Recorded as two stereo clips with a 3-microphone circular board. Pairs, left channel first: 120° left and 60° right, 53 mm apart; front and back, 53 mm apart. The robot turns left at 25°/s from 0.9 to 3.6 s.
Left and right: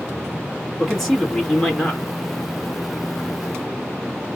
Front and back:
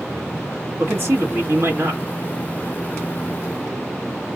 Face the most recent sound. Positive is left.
turn(degrees=140)